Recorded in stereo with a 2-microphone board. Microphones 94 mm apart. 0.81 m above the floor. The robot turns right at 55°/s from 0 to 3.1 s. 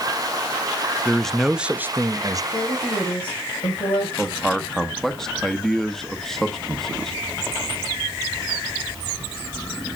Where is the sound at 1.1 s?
165° left, 0.5 m; by 2.4 s 120° right, 0.5 m.